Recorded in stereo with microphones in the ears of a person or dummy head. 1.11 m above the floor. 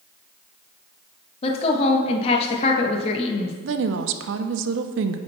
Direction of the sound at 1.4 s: 35° left (ahead or behind).